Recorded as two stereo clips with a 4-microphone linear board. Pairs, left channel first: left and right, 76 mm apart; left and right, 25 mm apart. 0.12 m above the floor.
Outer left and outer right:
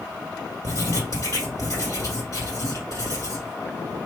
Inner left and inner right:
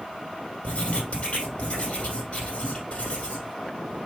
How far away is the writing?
About 2.5 m.